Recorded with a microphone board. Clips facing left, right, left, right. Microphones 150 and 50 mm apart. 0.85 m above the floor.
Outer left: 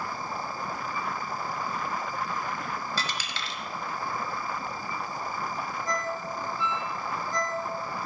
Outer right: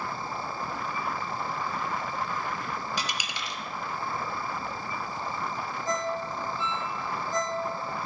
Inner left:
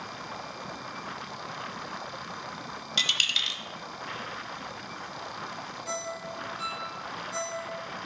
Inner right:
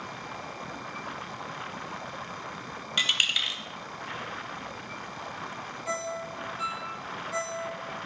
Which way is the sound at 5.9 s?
20° right (ahead or behind).